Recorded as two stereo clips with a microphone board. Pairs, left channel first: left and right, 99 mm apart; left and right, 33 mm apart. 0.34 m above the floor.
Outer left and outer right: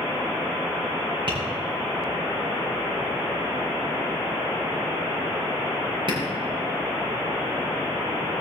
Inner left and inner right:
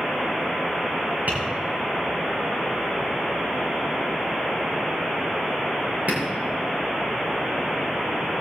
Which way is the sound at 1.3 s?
55° right (ahead or behind).